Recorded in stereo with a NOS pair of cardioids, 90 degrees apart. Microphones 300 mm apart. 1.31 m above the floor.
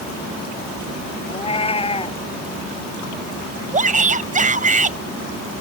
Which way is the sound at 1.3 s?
20° left.